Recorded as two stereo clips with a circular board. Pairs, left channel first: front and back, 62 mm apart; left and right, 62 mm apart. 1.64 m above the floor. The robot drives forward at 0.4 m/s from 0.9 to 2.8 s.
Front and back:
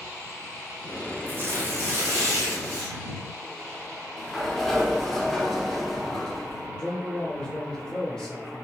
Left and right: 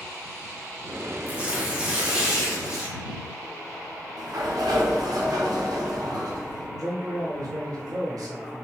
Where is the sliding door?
85° right, 0.6 m.